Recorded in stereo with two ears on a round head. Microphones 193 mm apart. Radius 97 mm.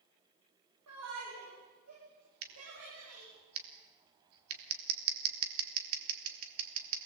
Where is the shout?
85° right, 9 m; by 3.3 s 90° right, 10 m.